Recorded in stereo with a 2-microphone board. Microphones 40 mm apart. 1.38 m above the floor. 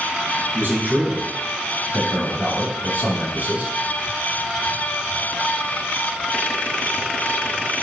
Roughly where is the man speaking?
Right.